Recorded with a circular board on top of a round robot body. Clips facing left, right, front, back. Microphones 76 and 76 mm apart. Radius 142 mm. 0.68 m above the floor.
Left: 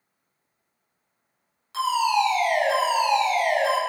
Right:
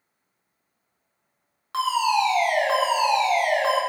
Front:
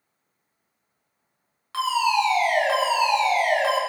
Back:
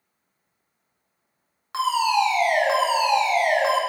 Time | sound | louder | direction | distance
1.7 | a fire alarm | even, back 1 dB | 110° right | 4.5 m